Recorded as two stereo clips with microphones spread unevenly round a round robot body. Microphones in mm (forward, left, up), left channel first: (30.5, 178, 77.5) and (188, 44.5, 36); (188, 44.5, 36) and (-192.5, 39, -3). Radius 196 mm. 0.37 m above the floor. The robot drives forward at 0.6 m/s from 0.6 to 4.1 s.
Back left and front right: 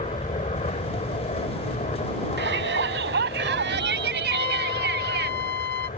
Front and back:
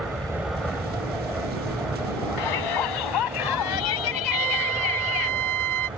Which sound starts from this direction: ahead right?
A shout, at 2.4 s.